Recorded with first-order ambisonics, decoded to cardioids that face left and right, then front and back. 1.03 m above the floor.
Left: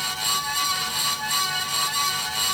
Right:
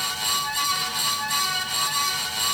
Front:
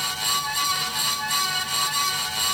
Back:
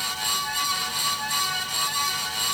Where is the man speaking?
No man speaking in this recording.